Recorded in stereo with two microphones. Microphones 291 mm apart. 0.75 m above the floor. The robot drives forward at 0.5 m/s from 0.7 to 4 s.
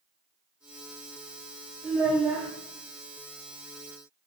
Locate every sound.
1.8 s a child speaking: centre (ahead or behind), 1.3 m